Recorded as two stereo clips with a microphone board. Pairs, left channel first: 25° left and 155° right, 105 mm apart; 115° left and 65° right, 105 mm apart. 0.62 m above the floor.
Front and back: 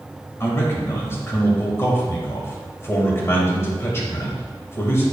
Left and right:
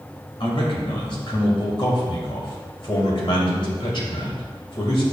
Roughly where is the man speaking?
Left.